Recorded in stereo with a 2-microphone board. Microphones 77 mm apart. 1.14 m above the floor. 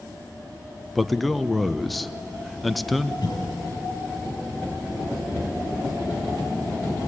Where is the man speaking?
Centre (ahead or behind), 0.8 m.